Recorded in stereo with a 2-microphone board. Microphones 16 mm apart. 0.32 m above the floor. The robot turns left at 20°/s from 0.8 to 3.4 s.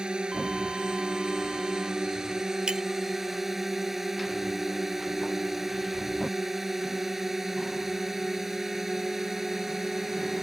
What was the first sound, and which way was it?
A drone, 105° right.